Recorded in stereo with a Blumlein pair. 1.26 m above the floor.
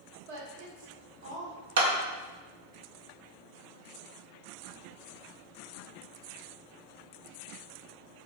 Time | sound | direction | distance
0.3 | a woman speaking | 50° right | 1.0 m
1.8 | a clap | 60° right | 0.7 m